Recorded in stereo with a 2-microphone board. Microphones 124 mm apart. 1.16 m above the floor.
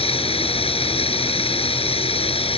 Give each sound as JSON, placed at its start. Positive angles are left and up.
{"t": 0.0, "sound": "running water", "side_deg": 55}